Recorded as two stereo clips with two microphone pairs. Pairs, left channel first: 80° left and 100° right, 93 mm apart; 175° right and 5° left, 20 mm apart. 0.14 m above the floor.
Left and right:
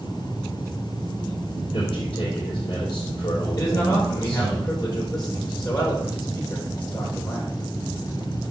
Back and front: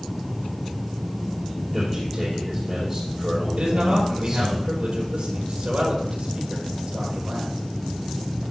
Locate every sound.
1.7 s a man speaking: 80° left, 5 m
3.6 s a man speaking: 35° left, 3 m